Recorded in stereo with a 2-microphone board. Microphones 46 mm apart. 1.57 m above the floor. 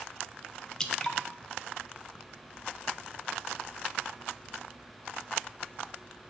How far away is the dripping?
About 0.5 m.